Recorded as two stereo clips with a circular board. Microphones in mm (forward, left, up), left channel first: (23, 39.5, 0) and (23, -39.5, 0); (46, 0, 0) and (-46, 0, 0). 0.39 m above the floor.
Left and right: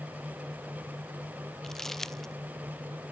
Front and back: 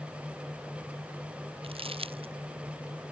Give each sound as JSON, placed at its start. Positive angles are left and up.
{"t": 1.6, "sound": "crumpling", "azimuth_deg": 175}